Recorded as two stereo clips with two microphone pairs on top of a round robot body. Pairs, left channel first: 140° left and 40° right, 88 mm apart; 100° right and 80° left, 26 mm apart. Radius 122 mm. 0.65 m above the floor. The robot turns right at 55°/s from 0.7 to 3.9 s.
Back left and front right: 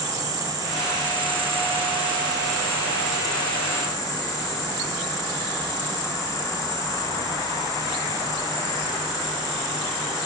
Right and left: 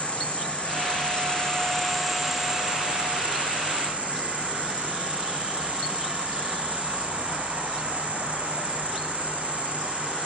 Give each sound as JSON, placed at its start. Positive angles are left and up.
{"t": 0.0, "sound": "an insect", "azimuth_deg": -90, "distance_m": 8.0}